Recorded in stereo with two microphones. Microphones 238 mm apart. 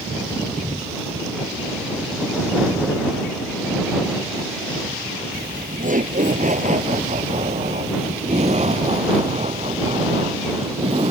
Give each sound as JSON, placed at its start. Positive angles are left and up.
{"t": 5.3, "sound": "laughter", "side_deg": -40}